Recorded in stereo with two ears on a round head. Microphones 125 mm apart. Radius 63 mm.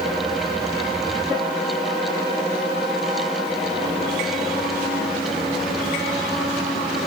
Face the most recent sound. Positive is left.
No sound to turn to.